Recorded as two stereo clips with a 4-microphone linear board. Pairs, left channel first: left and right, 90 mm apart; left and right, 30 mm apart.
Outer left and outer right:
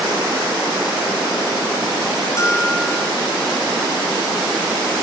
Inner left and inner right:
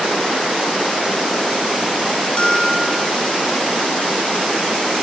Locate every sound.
2.4 s a bell: 30° left (ahead or behind), 3 m